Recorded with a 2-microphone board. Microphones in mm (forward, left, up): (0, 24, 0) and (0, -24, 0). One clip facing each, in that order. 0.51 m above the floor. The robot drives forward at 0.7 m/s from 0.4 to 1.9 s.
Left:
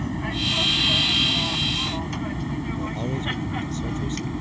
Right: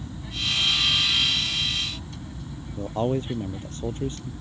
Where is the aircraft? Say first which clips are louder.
Left 6 dB; 65° left (ahead or behind); by 4.4 s 70° left (ahead or behind).